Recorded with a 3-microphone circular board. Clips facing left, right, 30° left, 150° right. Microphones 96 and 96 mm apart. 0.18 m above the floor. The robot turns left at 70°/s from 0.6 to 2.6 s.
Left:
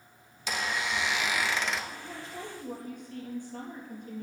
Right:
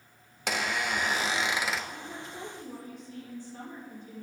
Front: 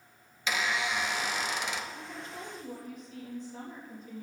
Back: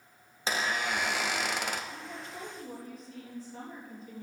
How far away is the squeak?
About 0.8 m.